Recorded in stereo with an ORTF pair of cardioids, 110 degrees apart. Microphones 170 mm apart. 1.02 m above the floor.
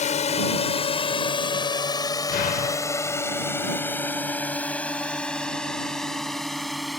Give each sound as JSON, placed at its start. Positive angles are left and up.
{"t": 0.0, "sound": "a drone", "azimuth_deg": 45}
{"t": 2.3, "sound": "an explosion", "azimuth_deg": 60}